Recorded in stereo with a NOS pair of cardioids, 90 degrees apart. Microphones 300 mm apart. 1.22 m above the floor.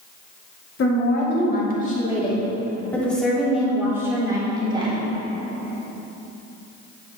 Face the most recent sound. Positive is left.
turn(degrees=-20)